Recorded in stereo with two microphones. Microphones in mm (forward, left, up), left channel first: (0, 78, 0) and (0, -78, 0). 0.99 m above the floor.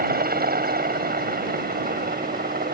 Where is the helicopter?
75° right (ahead or behind).